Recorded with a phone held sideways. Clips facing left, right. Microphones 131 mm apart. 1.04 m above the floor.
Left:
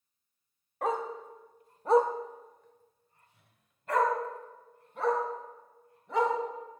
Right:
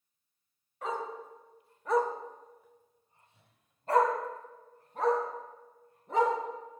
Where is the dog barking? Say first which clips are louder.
Left 4 dB; 55° left (ahead or behind), 1.4 m; by 6.3 s 45° right (ahead or behind), 4 m.